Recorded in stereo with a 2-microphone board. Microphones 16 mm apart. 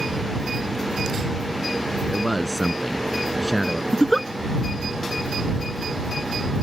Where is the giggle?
15° left (ahead or behind).